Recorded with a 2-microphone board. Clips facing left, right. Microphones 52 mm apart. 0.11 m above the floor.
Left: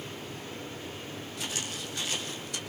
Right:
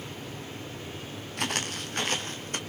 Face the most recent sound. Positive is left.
turn(degrees=-45)  # may be behind; listen again after turning